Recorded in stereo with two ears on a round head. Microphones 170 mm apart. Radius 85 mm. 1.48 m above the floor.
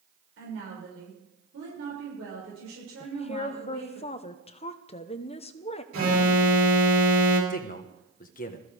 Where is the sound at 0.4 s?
75° right (ahead or behind), 6 m.